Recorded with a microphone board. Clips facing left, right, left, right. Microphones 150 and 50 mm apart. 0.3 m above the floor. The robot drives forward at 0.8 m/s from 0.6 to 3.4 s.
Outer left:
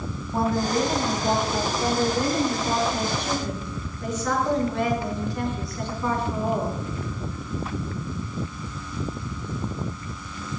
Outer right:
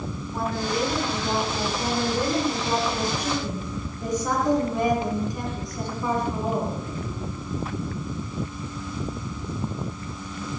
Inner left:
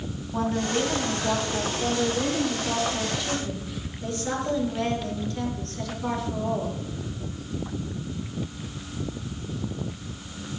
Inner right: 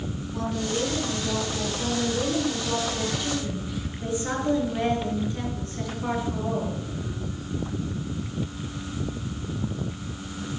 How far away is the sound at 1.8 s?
About 6 m.